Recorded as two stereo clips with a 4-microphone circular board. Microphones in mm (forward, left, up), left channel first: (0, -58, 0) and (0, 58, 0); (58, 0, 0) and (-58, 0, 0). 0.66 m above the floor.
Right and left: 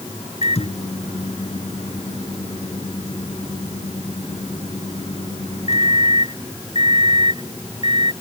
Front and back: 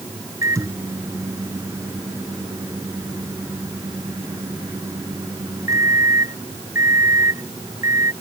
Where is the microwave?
115° right.